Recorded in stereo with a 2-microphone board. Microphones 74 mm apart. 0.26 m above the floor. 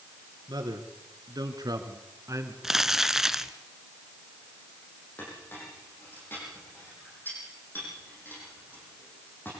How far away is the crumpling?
About 0.7 m.